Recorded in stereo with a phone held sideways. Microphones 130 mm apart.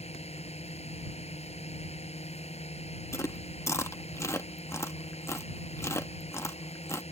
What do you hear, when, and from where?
0.0 s a drone: 55° left (ahead or behind)
3.1 s chewing: 20° left (ahead or behind)